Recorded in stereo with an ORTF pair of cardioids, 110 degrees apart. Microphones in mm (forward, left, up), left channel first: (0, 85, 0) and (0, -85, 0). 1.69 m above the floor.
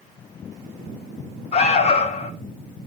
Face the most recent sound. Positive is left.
turn(degrees=40)